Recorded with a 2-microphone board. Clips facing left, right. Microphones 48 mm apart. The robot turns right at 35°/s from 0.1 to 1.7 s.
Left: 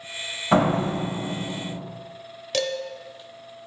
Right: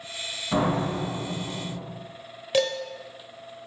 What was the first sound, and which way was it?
A door slam, 100° left.